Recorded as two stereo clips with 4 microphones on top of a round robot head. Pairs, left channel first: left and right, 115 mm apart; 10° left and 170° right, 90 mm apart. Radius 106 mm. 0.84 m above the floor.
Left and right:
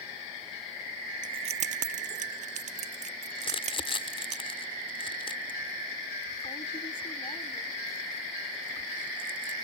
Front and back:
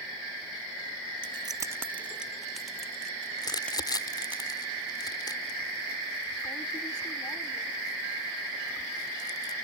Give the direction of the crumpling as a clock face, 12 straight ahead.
10 o'clock.